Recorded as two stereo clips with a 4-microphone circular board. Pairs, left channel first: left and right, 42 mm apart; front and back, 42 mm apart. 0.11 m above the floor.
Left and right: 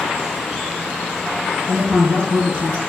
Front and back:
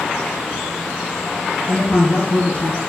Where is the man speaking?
35° right, 1.8 m.